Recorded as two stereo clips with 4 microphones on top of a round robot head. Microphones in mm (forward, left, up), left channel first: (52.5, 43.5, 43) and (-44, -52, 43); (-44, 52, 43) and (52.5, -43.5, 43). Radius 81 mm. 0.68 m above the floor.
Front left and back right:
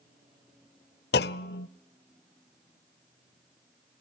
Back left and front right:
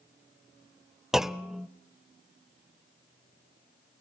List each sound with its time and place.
1.1 s a clunk: 40° left, 0.6 m